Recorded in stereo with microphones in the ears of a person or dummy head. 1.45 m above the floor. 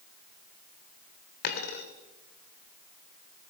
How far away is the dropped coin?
About 2 m.